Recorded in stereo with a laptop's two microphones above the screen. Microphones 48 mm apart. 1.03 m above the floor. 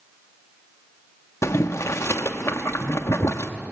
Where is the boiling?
90° left, 1.2 m.